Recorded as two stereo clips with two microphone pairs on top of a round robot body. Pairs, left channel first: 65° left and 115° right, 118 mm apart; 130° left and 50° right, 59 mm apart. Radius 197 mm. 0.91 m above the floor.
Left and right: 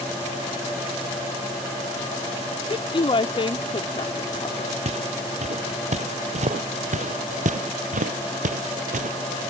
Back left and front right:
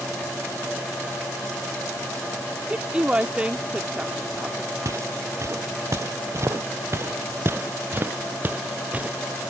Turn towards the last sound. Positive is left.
turn(degrees=-120)